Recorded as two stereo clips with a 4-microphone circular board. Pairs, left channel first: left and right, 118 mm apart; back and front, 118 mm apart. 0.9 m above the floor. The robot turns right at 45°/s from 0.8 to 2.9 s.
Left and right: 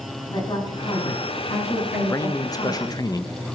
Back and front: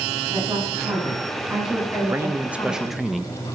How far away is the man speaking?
About 0.8 m.